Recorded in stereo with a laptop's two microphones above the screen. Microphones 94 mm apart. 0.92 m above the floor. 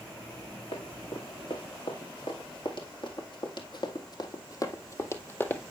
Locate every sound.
0.7 s running footsteps: 70° left (ahead or behind), 3 m; by 5.6 s 20° left (ahead or behind), 1.4 m